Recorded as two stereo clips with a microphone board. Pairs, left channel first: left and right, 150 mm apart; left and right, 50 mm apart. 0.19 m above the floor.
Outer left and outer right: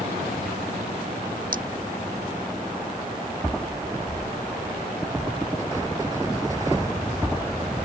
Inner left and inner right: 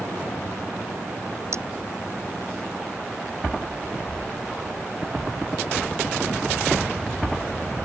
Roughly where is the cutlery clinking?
Right.